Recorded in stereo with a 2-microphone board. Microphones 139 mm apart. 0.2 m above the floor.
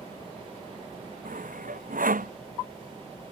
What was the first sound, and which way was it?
Sawing, 70° right (ahead or behind).